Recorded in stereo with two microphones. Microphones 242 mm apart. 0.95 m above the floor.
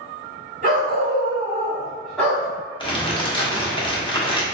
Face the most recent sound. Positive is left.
turn(degrees=20)  # may be behind; listen again after turning